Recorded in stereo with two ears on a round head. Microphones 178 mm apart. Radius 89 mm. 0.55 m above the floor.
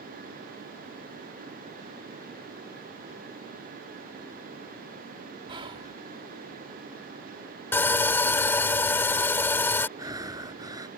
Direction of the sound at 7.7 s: 10° left (ahead or behind).